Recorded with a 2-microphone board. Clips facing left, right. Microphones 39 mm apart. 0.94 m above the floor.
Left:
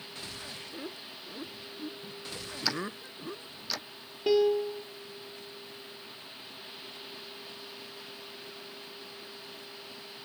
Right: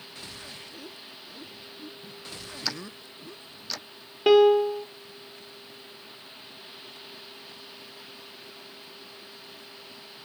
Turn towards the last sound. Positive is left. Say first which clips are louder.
# right 8 dB
turn(degrees=-65)  # may be behind; listen again after turning